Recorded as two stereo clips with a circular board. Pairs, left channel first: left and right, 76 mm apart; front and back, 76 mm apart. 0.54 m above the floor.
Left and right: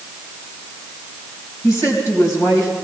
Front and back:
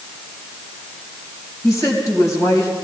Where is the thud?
No thud in this recording.